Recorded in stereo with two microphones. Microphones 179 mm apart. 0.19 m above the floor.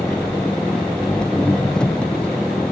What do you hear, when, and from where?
0.0 s an engine running: 5° left (ahead or behind)